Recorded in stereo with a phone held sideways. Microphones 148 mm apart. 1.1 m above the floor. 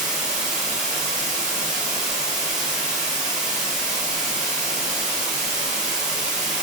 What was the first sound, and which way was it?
Running water, 5° right (ahead or behind).